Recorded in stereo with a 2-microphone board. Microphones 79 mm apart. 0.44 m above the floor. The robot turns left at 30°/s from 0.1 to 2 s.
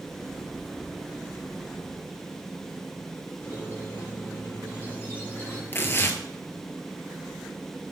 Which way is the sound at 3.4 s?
30° left (ahead or behind).